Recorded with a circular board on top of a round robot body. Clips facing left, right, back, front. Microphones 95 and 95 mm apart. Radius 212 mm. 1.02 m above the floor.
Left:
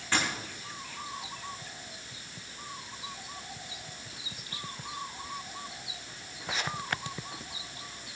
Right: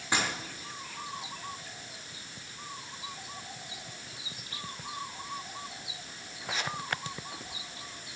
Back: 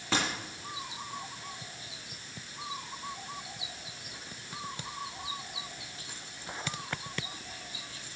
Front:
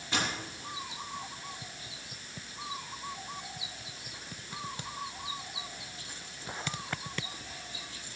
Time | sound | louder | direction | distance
0.1 | a dropped coin | even, back 2 dB | 165° right | 4.5 m